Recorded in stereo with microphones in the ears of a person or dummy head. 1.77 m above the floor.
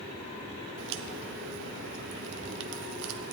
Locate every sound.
0.8 s a crack: 70° right (ahead or behind), 0.7 m